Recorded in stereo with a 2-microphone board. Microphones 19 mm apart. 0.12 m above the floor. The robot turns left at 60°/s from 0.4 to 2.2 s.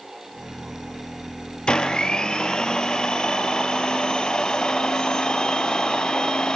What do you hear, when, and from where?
1.7 s a blender: 105° left, 3 m; by 6.6 s 75° left, 3 m